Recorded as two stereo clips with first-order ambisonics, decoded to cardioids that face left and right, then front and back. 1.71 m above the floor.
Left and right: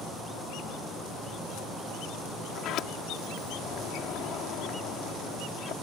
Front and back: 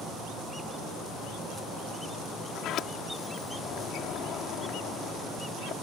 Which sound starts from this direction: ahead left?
A sliding door, at 2.5 s.